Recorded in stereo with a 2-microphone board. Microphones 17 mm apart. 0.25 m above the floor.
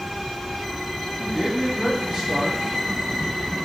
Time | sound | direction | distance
1.2 | a man speaking | 45° right (ahead or behind) | 1.2 m